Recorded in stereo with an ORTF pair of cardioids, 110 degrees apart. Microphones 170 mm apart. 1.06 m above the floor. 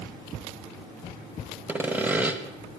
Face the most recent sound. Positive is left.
turn(degrees=-10)